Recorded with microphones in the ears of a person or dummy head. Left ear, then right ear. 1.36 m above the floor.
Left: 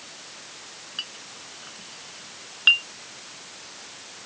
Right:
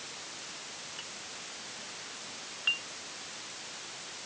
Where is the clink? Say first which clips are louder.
Left 6 dB; 80° left.